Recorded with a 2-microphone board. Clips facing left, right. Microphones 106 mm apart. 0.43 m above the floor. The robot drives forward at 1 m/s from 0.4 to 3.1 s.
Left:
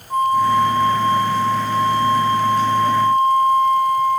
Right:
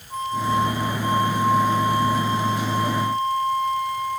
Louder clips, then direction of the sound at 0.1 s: Left 8 dB; 55° left (ahead or behind).